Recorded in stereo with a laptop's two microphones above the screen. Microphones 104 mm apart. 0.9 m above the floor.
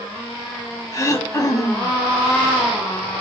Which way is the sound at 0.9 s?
30° left (ahead or behind).